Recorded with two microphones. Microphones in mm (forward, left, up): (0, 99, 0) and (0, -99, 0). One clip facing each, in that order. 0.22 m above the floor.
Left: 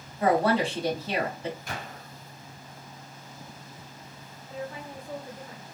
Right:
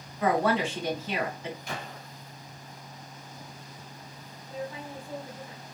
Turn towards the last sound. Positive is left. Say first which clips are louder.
# even
turn(degrees=35)  # may be behind; listen again after turning